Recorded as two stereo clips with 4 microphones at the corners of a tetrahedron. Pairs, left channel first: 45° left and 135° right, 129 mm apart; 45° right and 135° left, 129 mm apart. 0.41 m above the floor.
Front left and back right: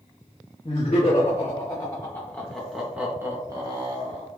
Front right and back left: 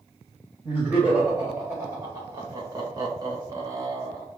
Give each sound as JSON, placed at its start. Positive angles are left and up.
{"t": 0.6, "sound": "laughter", "azimuth_deg": 65, "distance_m": 1.6}